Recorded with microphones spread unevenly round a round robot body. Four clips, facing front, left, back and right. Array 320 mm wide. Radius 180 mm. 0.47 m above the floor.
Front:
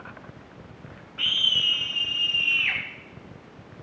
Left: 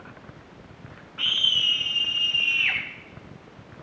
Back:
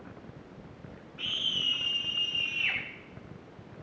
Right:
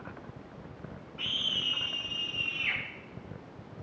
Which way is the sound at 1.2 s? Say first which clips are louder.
Left 8 dB, front 8 dB; 35° left.